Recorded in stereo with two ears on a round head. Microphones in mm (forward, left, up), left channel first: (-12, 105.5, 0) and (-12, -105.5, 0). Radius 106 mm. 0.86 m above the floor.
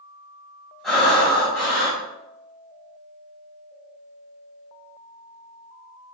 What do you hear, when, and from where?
0.8 s breathing: centre (ahead or behind), 1.9 m